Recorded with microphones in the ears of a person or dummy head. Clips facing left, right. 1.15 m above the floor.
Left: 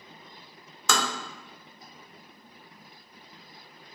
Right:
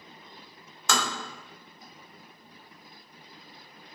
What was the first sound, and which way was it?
Tapping, 70° left (ahead or behind).